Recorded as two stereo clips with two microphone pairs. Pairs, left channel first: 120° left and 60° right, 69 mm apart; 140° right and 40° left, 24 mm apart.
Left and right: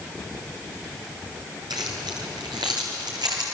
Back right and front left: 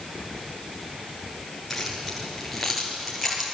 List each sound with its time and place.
1.7 s keys jangling: 55° right, 5 m